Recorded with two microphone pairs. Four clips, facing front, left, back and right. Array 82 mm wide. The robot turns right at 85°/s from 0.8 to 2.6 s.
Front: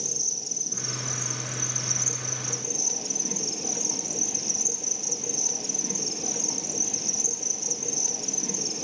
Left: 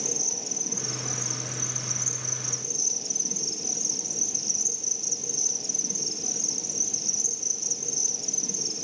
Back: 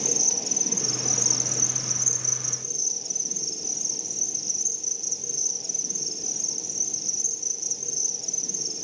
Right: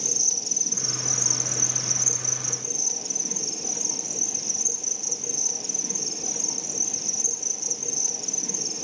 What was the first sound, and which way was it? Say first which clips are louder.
An insect: left 2 dB, back 7 dB; straight behind.